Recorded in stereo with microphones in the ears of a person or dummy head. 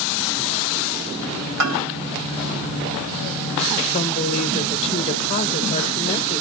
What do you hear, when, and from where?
1.6 s a bell: 85° right, 5 m
3.9 s a woman speaking: 35° left (ahead or behind), 0.9 m